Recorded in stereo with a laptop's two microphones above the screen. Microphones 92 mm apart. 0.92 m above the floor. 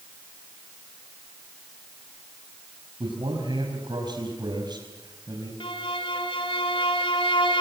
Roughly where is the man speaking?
Right.